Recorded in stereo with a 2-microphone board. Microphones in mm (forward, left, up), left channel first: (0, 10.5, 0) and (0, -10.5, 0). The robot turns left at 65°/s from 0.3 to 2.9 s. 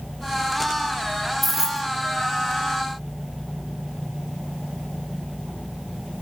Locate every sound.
1.4 s keys jangling: centre (ahead or behind), 1.8 m; by 1.9 s 30° right (ahead or behind), 1.8 m